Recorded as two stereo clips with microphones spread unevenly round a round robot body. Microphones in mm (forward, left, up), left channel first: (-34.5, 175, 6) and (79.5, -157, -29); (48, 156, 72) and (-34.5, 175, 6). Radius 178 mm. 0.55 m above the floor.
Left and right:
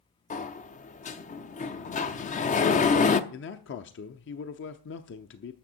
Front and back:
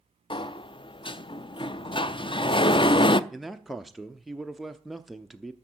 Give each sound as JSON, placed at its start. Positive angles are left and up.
{"t": 0.3, "sound": "a sliding door", "azimuth_deg": 50, "distance_m": 0.7}
{"t": 3.3, "sound": "a man speaking", "azimuth_deg": 155, "distance_m": 0.7}